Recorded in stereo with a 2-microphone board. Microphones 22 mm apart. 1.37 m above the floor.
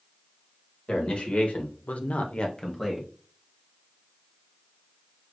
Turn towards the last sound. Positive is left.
turn(degrees=10)  # may be behind; listen again after turning